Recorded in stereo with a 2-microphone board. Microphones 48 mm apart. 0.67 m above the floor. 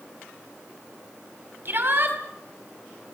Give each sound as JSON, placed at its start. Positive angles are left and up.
{"t": 1.6, "sound": "a shout", "side_deg": -50, "distance_m": 4.5}